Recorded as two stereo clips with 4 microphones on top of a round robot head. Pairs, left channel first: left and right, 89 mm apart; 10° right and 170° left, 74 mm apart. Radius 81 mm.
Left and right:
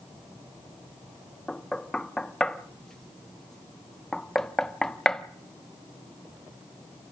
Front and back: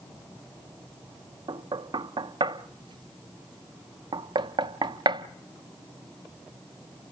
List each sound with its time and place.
1.5 s knocking: 175° left, 0.6 m